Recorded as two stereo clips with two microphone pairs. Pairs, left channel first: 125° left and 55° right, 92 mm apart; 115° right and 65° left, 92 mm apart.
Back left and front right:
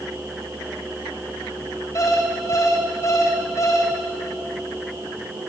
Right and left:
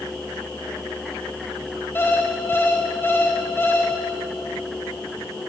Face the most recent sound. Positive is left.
turn(degrees=180)